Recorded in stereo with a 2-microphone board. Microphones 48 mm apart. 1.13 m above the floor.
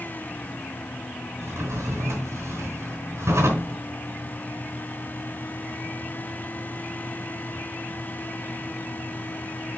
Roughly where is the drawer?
Right.